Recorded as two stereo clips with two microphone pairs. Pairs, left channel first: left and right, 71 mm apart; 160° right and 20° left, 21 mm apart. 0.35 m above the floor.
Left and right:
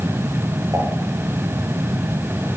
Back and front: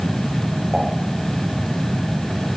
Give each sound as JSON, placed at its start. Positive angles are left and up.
{"t": 0.7, "sound": "dishes clattering", "azimuth_deg": -45, "distance_m": 6.0}